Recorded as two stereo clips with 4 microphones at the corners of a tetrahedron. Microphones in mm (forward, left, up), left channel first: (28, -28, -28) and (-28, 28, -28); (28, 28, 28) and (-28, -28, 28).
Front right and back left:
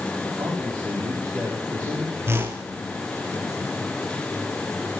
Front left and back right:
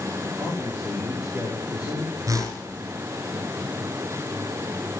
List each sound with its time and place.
0.4 s a man speaking: straight behind, 5 m
2.3 s a whoosh: 170° right, 1.9 m